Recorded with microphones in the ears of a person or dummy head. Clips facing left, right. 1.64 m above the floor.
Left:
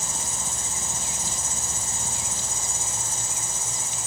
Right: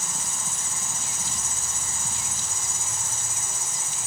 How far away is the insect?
About 3.5 m.